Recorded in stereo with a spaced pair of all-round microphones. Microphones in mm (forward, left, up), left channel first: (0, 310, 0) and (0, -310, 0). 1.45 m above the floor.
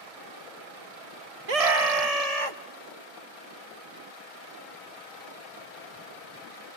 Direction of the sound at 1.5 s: 60° right (ahead or behind).